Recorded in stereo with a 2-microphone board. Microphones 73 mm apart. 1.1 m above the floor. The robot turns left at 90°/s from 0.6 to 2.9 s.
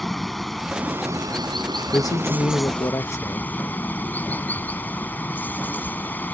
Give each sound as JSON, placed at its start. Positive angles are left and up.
{"t": 0.0, "sound": "running water", "azimuth_deg": 5}
{"t": 1.9, "sound": "a man speaking", "azimuth_deg": 135}